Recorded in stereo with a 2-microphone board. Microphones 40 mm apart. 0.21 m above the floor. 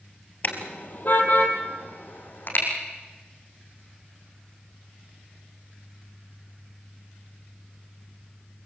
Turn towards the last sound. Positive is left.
turn(degrees=55)  # may be behind; listen again after turning